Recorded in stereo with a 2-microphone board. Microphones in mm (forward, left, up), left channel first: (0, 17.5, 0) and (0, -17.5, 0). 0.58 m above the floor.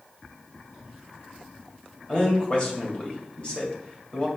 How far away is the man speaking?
About 2.5 m.